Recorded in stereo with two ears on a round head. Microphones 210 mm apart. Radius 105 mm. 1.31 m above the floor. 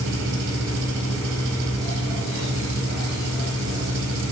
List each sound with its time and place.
0.0 s an engine running: 60° right (ahead or behind), 4 m